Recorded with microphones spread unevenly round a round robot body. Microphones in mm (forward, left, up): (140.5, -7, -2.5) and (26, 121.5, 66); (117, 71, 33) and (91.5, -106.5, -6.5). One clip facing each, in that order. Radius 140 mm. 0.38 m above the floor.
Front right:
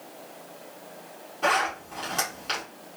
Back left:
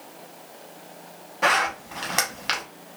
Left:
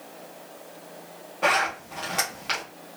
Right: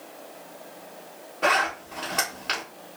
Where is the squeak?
I don't hear a squeak.